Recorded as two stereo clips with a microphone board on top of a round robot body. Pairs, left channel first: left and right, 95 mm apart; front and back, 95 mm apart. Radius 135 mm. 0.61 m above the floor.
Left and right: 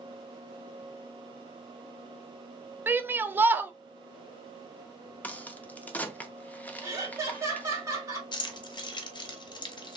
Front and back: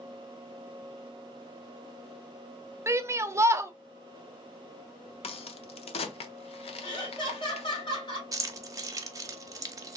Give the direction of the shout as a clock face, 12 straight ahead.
5 o'clock.